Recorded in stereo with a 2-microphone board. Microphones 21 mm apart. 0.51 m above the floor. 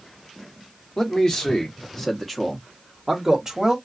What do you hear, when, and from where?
1.0 s a man speaking: 30° left (ahead or behind), 1.2 m; by 3.8 s 25° right (ahead or behind), 1.0 m